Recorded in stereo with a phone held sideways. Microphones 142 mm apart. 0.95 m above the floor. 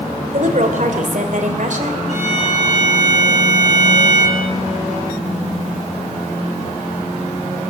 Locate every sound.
0.3 s a woman speaking: 60° right (ahead or behind), 3 m
2.1 s a violin: 55° left (ahead or behind), 8.5 m